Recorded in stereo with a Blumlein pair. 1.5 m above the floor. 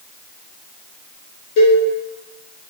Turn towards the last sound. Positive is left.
turn(degrees=45)